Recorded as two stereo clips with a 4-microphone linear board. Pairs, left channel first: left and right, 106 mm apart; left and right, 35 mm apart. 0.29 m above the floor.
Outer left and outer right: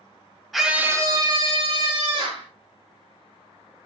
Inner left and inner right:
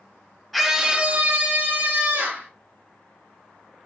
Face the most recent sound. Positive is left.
turn(degrees=-65)  # may be behind; listen again after turning